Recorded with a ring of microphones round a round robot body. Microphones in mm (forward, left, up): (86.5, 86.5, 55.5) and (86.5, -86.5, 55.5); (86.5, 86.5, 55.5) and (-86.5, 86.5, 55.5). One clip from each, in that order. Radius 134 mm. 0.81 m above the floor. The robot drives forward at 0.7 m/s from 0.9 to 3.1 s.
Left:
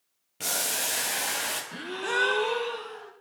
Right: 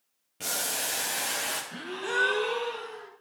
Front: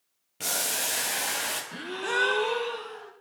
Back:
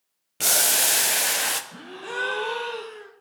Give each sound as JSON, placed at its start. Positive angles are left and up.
{"t": 0.4, "sound": "boiling", "azimuth_deg": 170, "distance_m": 0.5}
{"t": 1.7, "sound": "a gasp", "azimuth_deg": 10, "distance_m": 0.7}